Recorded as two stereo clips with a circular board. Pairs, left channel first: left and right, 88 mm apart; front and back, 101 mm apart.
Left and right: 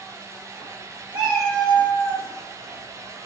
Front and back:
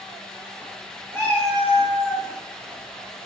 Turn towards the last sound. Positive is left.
turn(degrees=35)